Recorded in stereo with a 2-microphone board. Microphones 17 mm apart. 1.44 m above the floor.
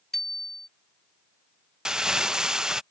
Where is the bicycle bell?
20° left (ahead or behind).